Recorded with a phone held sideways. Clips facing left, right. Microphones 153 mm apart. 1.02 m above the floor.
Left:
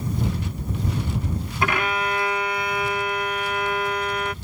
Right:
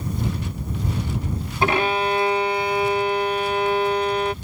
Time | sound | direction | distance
1.6 | a violin | 30° right (ahead or behind) | ?